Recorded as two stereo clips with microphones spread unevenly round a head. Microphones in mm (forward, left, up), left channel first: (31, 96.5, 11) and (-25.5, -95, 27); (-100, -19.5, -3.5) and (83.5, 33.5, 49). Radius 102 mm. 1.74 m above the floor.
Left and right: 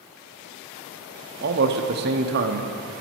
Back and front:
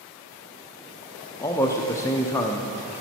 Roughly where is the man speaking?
Right.